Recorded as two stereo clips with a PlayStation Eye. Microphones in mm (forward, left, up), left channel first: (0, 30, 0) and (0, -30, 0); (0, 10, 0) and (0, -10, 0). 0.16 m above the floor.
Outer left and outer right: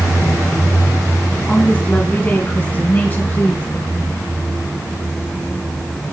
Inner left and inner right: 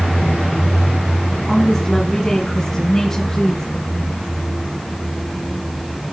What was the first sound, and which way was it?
A woman speaking, 20° left (ahead or behind).